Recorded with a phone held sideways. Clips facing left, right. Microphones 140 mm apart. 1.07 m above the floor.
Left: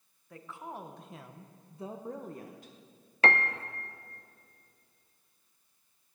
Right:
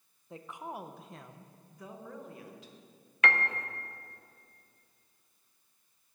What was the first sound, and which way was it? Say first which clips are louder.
A woman speaking: right 1 dB; 25° right (ahead or behind).